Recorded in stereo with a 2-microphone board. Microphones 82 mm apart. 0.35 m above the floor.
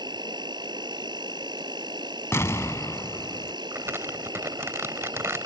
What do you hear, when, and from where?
0.0 s an insect: 60° right (ahead or behind)
2.3 s an explosion: 35° left (ahead or behind)
3.7 s crumpling: 30° right (ahead or behind)